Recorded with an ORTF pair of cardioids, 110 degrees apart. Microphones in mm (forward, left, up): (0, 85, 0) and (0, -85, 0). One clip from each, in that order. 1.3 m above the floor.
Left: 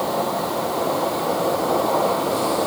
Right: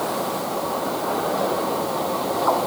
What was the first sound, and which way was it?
Only background noise.